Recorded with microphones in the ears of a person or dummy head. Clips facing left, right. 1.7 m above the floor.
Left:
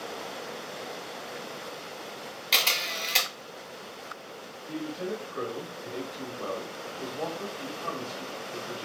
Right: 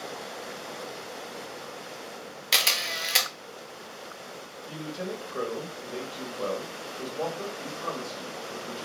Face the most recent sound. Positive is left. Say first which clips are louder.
# left 2 dB
turn(degrees=-55)  # may be behind; listen again after turning